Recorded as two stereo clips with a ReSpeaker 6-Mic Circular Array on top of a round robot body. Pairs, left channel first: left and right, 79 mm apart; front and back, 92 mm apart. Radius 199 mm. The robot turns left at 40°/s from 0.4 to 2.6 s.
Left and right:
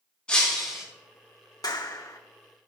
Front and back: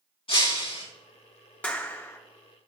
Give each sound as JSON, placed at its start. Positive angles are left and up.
{"t": 0.3, "sound": "breaking glass", "azimuth_deg": 15, "distance_m": 3.5}
{"t": 1.6, "sound": "a clap", "azimuth_deg": 75, "distance_m": 1.8}